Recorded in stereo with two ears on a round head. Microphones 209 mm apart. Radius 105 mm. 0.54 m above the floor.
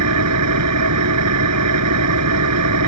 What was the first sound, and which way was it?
An engine running, 80° right.